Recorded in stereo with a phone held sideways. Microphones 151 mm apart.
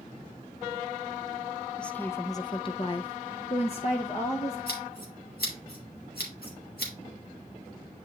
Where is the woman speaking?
5° left (ahead or behind), 0.7 m; by 4.6 s 40° left (ahead or behind), 1.4 m.